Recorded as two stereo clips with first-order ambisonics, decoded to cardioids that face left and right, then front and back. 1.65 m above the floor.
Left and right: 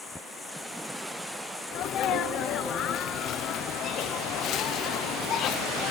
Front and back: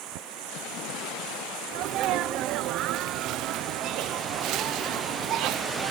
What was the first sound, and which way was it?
Running water, 170° left.